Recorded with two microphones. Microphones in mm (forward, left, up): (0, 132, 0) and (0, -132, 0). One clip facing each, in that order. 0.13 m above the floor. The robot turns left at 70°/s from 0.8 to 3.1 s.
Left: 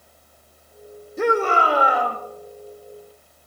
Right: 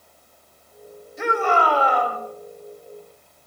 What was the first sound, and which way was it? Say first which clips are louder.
A shout: left 3 dB; 65° left.